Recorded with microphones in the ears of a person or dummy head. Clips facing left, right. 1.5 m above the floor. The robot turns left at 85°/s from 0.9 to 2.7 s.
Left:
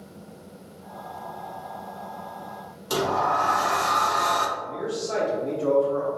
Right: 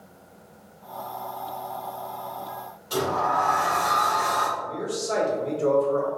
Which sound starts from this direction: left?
A sliding door, at 2.9 s.